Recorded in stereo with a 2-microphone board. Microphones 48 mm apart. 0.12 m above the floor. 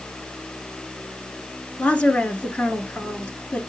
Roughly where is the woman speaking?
Left.